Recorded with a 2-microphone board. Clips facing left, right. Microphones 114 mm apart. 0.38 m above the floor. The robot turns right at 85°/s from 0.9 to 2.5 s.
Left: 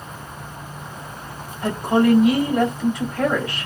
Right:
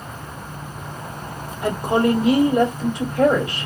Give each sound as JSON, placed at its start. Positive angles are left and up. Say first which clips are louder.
{"t": 1.6, "sound": "a woman speaking", "louder": "left 1 dB", "side_deg": -15, "distance_m": 1.3}